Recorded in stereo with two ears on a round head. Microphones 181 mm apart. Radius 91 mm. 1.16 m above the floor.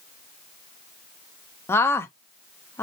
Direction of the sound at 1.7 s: 10° left (ahead or behind).